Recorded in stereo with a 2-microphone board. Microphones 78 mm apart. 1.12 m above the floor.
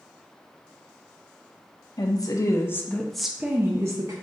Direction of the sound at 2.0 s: 55° left (ahead or behind).